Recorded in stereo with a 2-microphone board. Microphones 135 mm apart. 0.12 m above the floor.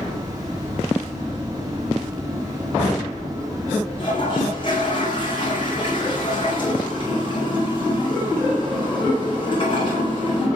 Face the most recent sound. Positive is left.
turn(degrees=35)  # may be behind; listen again after turning